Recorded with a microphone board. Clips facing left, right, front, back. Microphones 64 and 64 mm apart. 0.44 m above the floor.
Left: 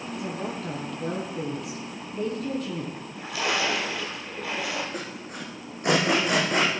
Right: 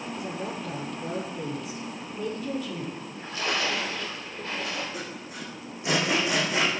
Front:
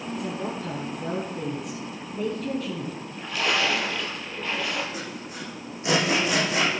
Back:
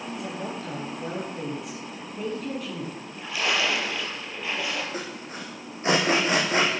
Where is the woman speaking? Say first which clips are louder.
Left 3 dB, front 4 dB; 90° left, 9.5 m.